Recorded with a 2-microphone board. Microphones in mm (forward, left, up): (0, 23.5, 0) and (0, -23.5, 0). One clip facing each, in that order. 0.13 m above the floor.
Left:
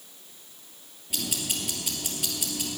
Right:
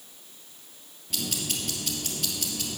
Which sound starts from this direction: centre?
Ticking, at 1.1 s.